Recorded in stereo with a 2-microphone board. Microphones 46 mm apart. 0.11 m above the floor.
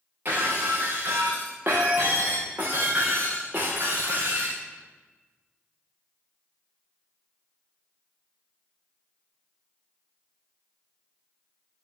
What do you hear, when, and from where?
0.2 s breaking glass: 45° right (ahead or behind), 4 m